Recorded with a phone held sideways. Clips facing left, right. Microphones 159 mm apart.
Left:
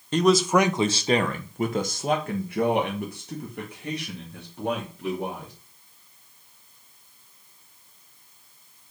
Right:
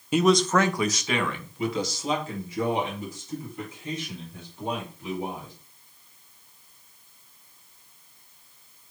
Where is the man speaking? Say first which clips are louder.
Left 1 dB; 10° right (ahead or behind), 0.7 m; by 5.5 s 75° left (ahead or behind), 3.5 m.